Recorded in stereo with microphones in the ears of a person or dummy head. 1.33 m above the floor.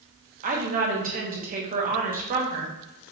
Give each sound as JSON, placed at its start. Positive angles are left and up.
{"t": 0.4, "sound": "a woman speaking", "side_deg": -40, "distance_m": 1.2}